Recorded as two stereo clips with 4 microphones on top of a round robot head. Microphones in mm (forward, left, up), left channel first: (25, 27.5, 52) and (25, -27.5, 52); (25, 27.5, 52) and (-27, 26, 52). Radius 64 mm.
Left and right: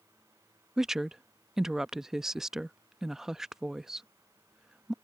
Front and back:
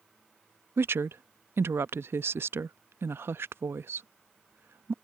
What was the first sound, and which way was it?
A woman speaking, 170° right.